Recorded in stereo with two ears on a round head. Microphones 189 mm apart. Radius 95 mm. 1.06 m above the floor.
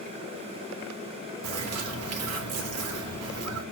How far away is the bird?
About 1.4 m.